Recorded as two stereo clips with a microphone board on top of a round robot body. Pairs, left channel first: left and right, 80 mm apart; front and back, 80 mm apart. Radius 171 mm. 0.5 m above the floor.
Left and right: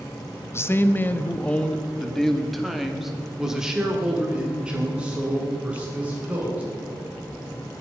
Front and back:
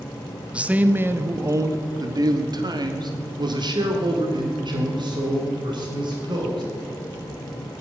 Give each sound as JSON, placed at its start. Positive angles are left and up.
{"t": 0.5, "sound": "a man speaking", "azimuth_deg": 115, "distance_m": 1.2}